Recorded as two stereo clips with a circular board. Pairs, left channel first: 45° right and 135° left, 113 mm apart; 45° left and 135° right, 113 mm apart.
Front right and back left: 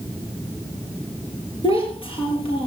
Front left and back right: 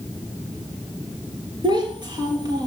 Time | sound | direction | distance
1.6 | a child speaking | 85° right | 6 m